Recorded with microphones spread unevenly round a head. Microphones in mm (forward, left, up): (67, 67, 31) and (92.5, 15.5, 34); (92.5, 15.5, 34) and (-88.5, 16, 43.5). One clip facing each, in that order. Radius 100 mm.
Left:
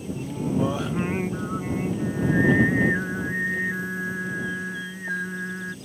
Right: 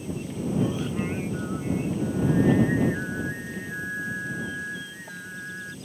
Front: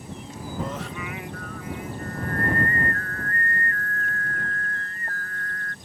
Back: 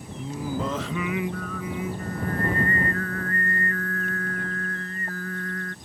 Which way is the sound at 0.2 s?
160° left.